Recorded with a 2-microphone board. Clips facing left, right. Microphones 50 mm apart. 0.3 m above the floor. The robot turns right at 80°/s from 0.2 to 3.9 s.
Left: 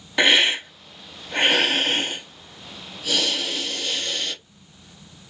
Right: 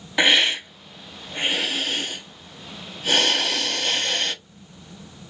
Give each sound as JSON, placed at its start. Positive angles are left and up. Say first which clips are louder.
{"t": 0.2, "sound": "a hiss", "louder": "left 1 dB", "azimuth_deg": 0, "distance_m": 0.8}